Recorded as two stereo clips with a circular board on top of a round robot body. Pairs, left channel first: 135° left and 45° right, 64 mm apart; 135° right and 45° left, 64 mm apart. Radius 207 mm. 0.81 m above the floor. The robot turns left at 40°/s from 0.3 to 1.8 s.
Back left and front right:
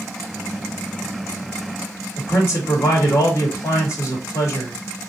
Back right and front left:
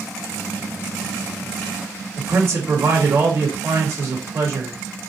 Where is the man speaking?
95° left, 2.0 m.